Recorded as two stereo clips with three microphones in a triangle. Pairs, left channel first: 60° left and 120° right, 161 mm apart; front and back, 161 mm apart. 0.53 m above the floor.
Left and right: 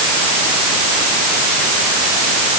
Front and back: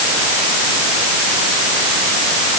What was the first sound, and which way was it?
Only background noise.